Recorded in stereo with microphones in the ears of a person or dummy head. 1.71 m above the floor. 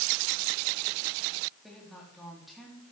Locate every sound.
1.6 s a woman speaking: 5° left (ahead or behind), 4 m